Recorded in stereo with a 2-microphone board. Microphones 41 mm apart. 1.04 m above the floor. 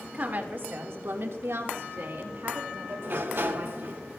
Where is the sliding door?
55° right (ahead or behind), 1.0 m.